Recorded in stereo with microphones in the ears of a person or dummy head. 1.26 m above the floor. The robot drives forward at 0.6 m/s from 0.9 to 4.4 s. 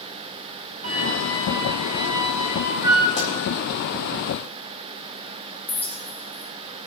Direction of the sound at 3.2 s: 35° left (ahead or behind).